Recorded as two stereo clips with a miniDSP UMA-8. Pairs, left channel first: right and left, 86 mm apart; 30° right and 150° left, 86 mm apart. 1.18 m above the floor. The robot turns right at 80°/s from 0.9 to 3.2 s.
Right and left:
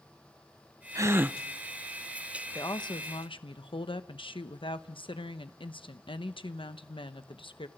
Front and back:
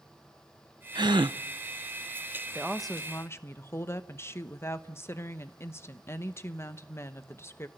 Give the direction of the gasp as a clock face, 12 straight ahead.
8 o'clock.